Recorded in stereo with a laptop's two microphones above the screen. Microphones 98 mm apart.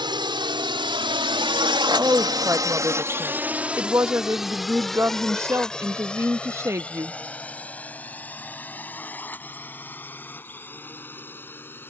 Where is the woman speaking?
30° right (ahead or behind).